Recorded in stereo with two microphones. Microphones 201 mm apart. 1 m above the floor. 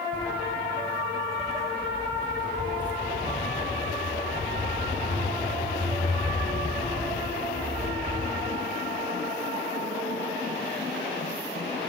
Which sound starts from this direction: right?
Footsteps, at 0.1 s.